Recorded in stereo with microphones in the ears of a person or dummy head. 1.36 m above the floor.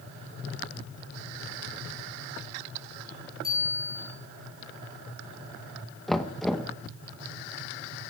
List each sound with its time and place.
3.4 s a bicycle bell: 50° left (ahead or behind), 5.5 m
6.1 s knocking: centre (ahead or behind), 0.9 m